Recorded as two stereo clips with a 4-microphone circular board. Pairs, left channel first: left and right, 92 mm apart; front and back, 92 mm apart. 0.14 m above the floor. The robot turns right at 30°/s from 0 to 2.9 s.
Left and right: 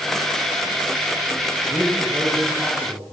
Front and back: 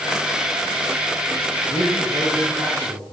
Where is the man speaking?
160° right, 7 m; by 3.0 s 120° right, 7 m.